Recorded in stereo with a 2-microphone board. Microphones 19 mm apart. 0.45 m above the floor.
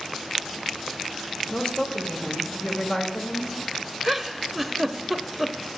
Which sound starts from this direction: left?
A woman speaking, at 1.5 s.